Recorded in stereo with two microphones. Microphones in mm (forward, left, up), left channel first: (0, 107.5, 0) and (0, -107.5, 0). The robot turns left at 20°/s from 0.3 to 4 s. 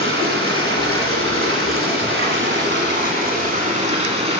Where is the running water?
75° right, 1.2 m; by 4.4 s 150° right, 1.2 m.